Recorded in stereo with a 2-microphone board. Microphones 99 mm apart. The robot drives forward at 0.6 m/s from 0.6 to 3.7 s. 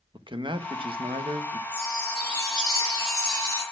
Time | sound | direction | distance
0.1 | a man speaking | 55° right (ahead or behind) | 1.4 m
1.7 | a chime | 45° right (ahead or behind) | 7 m